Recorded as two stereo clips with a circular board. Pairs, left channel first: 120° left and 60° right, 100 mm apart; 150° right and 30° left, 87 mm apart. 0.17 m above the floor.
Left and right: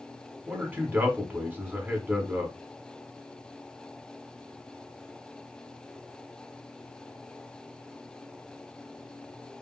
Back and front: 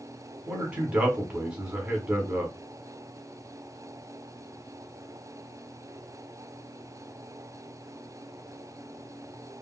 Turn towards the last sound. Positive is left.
turn(degrees=-25)